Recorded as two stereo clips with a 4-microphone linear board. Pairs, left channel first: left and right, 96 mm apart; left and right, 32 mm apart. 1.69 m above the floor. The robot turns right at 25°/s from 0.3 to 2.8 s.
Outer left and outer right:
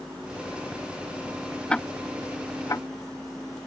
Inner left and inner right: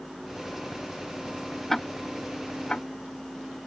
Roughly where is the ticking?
Centre.